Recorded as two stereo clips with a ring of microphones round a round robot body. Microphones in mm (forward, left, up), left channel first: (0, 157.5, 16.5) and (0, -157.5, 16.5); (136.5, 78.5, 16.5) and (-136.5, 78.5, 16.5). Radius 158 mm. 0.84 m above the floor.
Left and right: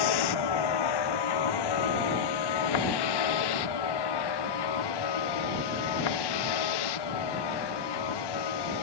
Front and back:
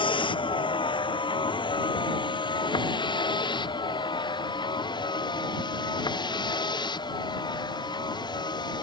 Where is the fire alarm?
I don't hear a fire alarm.